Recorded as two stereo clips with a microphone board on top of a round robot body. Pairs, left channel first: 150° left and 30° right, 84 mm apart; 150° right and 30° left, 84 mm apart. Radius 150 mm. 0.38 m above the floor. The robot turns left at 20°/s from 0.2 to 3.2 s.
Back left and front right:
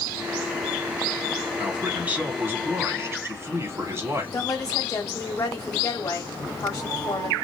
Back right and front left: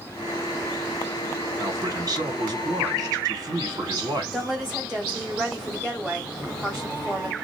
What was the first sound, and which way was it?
A man speaking, 45° left.